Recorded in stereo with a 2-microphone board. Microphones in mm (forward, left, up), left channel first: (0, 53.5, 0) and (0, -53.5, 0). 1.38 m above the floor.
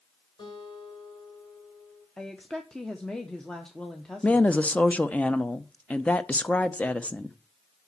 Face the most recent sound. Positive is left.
turn(degrees=10)  # may be behind; listen again after turning